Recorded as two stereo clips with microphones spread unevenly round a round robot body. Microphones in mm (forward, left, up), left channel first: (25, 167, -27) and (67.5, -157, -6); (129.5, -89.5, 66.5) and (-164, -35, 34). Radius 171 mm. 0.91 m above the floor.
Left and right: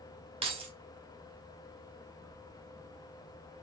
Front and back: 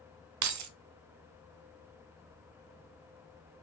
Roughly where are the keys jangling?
Behind.